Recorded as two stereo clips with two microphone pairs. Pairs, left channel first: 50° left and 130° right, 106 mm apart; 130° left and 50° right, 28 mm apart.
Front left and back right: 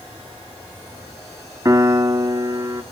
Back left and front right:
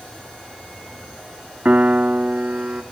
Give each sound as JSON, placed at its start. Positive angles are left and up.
{"t": 1.6, "sound": "a piano", "azimuth_deg": -75, "distance_m": 0.8}